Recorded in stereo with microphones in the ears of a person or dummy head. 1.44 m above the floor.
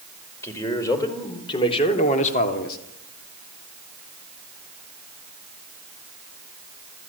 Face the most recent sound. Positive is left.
turn(degrees=50)  # may be behind; listen again after turning